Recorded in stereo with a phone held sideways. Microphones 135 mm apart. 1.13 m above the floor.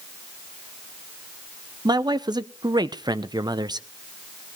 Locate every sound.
1.9 s a man speaking: 30° right (ahead or behind), 0.7 m